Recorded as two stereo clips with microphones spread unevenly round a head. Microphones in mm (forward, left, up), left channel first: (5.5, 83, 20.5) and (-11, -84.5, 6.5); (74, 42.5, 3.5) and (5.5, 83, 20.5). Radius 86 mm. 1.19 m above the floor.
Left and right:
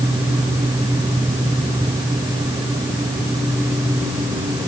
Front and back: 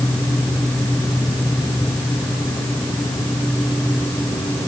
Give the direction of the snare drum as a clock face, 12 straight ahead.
No snare drum in this recording.